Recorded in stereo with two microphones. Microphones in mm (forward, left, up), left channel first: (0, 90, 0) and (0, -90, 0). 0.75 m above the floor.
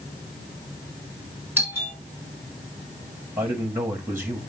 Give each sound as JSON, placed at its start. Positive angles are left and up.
{"t": 1.6, "sound": "a doorbell", "side_deg": -10, "distance_m": 2.0}
{"t": 3.4, "sound": "a man speaking", "side_deg": -15, "distance_m": 1.4}